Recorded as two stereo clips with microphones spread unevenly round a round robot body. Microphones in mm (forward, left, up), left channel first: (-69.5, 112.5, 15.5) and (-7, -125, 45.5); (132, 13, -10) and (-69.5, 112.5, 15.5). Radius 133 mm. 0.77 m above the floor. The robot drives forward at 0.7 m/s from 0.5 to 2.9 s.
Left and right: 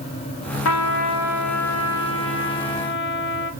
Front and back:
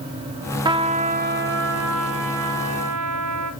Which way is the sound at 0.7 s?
80° left.